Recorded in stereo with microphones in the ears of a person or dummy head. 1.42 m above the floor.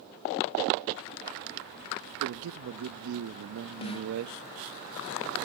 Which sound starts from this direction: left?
A snare drum, at 3.8 s.